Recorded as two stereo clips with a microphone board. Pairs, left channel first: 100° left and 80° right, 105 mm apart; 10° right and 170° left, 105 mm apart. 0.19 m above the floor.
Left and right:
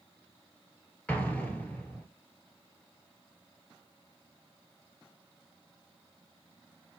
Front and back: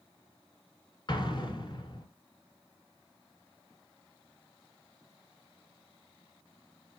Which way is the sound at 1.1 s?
25° left.